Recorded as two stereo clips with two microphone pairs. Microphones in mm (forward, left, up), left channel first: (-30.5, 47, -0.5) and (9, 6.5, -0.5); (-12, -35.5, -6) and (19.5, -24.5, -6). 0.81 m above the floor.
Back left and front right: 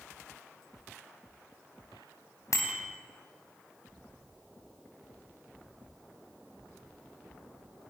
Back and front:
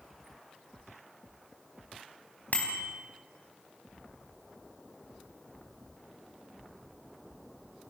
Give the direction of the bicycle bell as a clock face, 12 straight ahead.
7 o'clock.